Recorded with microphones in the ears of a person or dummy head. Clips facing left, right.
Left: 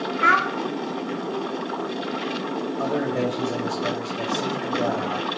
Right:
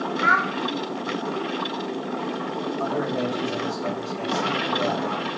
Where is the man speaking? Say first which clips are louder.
Left 2 dB; 75° left (ahead or behind), 1.9 m.